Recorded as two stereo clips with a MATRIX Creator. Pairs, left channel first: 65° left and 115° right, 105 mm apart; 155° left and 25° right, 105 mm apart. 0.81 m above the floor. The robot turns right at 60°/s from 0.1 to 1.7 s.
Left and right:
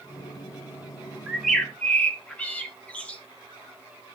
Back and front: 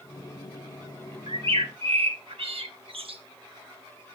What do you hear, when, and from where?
1.3 s a bird: 35° right, 0.9 m; by 3.2 s 10° right, 0.9 m